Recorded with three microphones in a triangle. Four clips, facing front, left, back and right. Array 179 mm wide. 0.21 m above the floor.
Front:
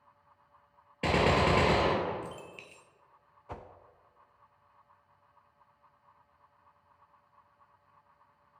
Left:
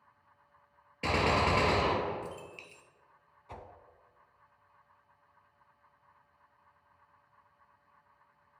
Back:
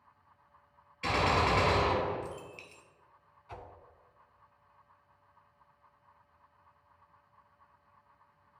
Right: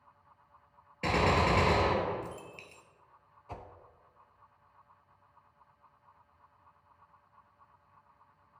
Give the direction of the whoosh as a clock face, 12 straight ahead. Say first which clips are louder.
Right 2 dB, front 3 dB; 12 o'clock.